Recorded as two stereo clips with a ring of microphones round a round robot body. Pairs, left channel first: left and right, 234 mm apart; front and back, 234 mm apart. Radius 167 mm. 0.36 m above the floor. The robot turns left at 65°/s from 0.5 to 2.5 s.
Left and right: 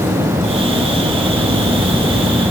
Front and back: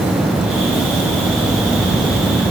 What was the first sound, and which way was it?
Only background noise.